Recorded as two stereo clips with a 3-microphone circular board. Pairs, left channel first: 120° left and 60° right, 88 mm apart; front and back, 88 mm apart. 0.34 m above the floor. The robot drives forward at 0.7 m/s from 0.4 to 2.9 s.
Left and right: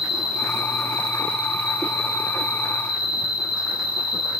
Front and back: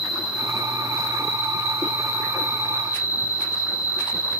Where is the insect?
90° left, 3.5 m; by 4.4 s 120° left, 4 m.